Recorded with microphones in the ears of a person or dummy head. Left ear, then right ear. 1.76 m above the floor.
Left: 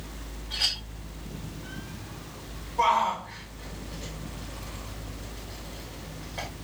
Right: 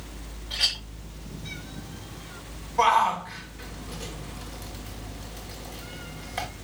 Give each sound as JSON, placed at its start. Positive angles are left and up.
{"t": 0.5, "sound": "a clink", "side_deg": -30, "distance_m": 3.5}
{"t": 2.8, "sound": "a shout", "side_deg": -40, "distance_m": 1.2}